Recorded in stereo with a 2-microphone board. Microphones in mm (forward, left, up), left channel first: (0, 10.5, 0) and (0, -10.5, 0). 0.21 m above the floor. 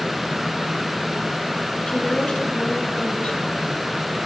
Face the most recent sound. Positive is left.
turn(degrees=55)  # may be behind; listen again after turning